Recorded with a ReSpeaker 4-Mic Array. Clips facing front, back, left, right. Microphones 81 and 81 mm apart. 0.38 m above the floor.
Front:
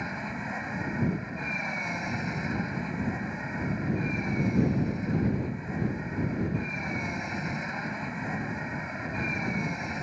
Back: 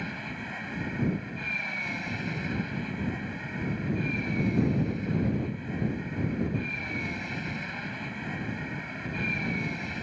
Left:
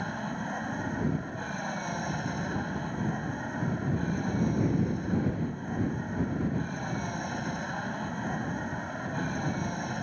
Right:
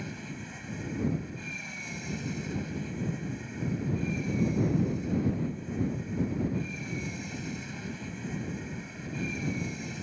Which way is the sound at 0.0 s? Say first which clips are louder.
Front 2 dB, left 6 dB; 65° left.